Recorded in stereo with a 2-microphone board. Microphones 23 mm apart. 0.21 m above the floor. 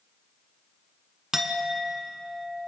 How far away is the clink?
About 1.4 m.